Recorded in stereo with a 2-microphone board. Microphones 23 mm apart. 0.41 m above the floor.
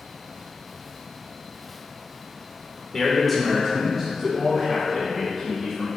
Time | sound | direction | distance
2.9 | a man speaking | 15° left (ahead or behind) | 1.0 m